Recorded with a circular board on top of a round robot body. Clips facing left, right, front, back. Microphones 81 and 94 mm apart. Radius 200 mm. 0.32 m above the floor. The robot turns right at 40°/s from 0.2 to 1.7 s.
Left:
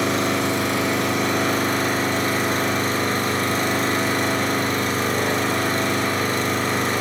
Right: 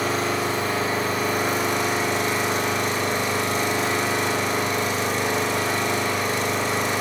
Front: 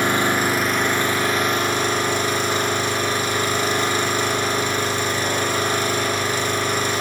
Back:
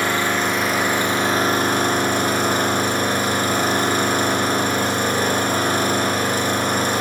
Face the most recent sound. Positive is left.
turn(degrees=135)